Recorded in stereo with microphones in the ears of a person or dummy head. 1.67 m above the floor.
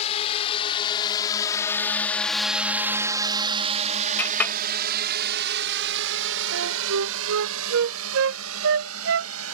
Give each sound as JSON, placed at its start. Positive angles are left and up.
{"t": 0.0, "sound": "a drone", "side_deg": 40}
{"t": 4.2, "sound": "a clink", "side_deg": 5}
{"t": 6.5, "sound": "a flute", "side_deg": -65}